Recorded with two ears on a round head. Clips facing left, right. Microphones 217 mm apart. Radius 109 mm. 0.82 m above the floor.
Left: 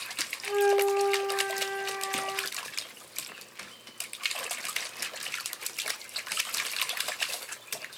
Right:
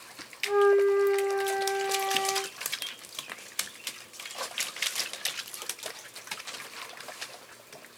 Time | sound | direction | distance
0.4 | a flute | 5° right (ahead or behind) | 1.3 m